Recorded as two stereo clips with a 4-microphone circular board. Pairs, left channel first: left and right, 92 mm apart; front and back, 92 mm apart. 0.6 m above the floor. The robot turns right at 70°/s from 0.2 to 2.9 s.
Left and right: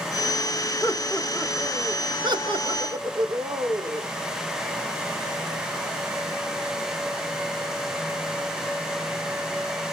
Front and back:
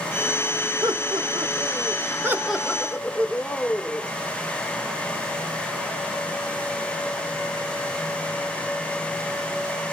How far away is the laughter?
About 2 m.